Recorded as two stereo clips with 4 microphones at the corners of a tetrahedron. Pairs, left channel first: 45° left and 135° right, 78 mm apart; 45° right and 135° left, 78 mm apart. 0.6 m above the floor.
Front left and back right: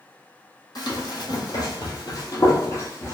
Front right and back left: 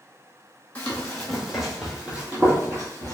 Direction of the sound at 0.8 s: 25° left.